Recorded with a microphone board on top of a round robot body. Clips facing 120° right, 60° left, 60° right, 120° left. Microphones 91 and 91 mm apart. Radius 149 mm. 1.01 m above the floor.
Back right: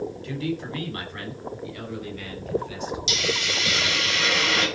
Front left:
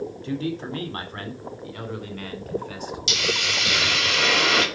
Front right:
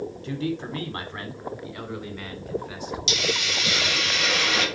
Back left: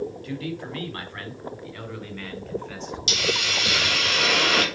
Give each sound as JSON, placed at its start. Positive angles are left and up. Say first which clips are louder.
{"t": 0.2, "sound": "a man speaking", "louder": "front left 4 dB, front right 3 dB", "azimuth_deg": 0, "distance_m": 2.5}
{"t": 3.1, "sound": "a hiss", "louder": "front left 3 dB, back left 2 dB", "azimuth_deg": 85, "distance_m": 3.0}